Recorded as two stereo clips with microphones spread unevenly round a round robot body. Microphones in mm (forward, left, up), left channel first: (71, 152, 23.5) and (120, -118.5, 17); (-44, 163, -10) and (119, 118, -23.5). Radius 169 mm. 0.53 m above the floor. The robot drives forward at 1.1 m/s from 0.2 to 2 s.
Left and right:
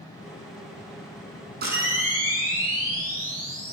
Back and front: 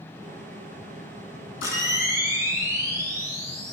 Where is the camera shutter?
145° right, 4.5 m; by 3.7 s 150° right, 5 m.